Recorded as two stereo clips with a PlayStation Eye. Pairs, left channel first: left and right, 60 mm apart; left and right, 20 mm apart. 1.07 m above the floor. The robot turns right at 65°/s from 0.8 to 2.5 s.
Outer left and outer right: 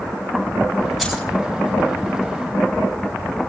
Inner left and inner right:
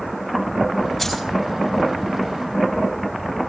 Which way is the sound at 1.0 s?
Centre (ahead or behind).